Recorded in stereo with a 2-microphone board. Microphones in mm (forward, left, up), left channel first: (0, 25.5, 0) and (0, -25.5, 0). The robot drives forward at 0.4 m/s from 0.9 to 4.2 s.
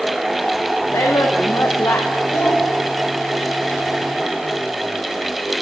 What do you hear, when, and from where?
0.9 s a woman speaking: 85° left, 0.9 m; by 2.1 s 65° left (ahead or behind), 1.0 m
2.3 s a child speaking: 70° left (ahead or behind), 6 m